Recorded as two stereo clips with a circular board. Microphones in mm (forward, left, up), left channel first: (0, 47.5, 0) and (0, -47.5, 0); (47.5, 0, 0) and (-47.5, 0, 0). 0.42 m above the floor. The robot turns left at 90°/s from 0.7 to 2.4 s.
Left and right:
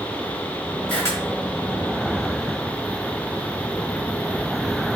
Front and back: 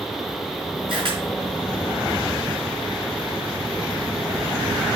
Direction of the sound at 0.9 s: 165° left.